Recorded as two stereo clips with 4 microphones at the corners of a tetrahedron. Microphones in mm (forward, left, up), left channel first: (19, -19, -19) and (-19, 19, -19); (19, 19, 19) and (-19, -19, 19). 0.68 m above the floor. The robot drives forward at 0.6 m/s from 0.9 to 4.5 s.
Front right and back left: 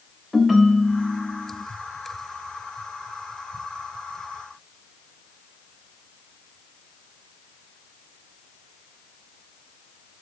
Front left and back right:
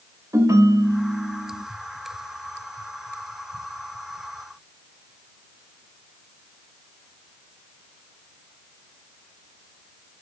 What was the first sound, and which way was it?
A ringtone, 140° right.